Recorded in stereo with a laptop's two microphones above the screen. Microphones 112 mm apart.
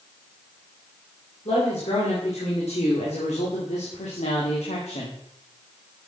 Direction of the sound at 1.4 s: 65° left (ahead or behind).